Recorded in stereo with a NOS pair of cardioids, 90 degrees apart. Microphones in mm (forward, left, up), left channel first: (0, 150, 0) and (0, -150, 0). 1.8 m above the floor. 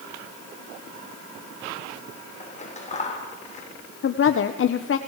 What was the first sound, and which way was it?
Scissors, 25° left.